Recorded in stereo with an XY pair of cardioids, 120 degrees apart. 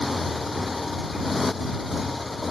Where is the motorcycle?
15° left.